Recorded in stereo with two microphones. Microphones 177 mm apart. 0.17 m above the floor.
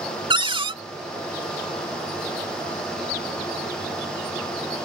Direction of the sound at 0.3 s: 30° right (ahead or behind).